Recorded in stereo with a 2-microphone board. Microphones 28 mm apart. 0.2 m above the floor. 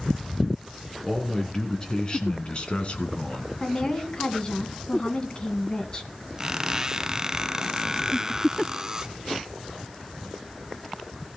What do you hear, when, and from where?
1.0 s a man speaking: 15° left (ahead or behind), 2 m; by 3.5 s 55° left (ahead or behind), 2 m
3.6 s a woman speaking: 35° left (ahead or behind), 1.7 m
6.4 s a squeak: 25° right (ahead or behind), 0.6 m